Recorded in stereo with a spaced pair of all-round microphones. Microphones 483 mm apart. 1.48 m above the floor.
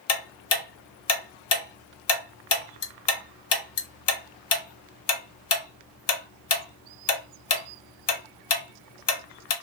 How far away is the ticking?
About 0.5 m.